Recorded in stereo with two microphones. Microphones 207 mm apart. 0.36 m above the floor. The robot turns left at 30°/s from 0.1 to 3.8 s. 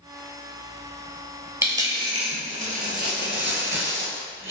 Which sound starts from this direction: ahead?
A dropped coin, at 1.6 s.